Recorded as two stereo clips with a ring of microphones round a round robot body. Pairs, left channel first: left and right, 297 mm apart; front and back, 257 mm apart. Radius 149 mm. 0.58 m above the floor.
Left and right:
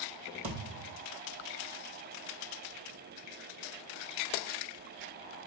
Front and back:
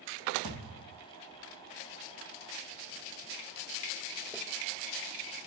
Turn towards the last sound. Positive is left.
turn(degrees=-145)